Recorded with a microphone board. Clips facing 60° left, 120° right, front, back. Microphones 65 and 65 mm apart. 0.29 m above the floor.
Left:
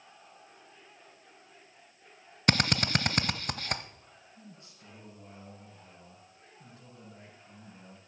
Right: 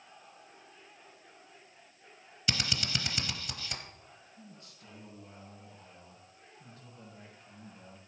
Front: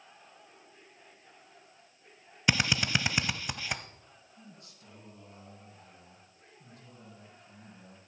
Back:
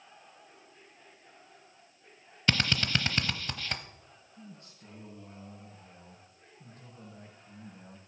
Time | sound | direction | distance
2.5 | a drill | 75° left | 0.7 m
4.4 | a man speaking | 125° left | 6.5 m